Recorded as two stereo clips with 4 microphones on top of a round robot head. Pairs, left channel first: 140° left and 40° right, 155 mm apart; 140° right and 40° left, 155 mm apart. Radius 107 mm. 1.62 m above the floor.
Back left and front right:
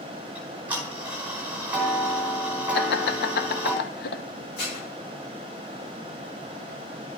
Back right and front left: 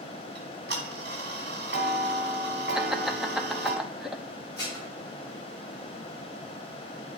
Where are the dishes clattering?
150° left, 4.5 m.